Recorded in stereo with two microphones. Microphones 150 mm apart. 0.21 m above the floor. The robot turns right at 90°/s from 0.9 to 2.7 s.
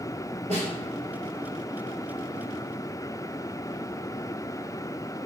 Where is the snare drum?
45° right (ahead or behind), 1.3 m.